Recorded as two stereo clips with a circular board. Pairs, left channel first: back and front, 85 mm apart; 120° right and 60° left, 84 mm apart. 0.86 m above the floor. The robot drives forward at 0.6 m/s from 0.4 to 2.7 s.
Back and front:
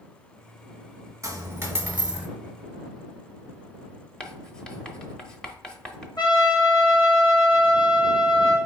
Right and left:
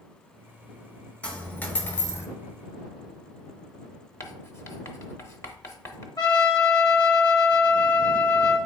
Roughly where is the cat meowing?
I don't hear a cat meowing.